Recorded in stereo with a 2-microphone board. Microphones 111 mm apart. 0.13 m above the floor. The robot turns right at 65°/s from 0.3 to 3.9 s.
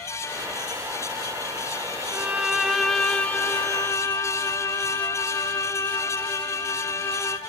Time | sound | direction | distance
2.1 | a violin | 20° right (ahead or behind) | 0.7 m